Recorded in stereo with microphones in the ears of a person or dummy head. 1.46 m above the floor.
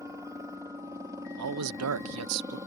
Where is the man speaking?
75° right (ahead or behind).